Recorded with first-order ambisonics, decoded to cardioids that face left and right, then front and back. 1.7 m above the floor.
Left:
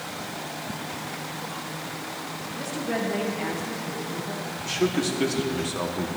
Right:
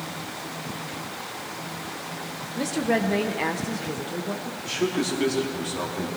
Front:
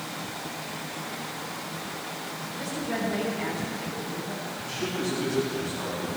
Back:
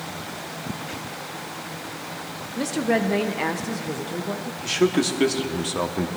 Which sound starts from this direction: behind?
A man speaking, at 4.6 s.